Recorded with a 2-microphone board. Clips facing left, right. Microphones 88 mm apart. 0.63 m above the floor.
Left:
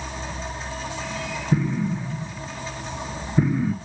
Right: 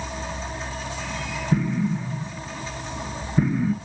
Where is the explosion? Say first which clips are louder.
Even; 5° left (ahead or behind), 1.1 m.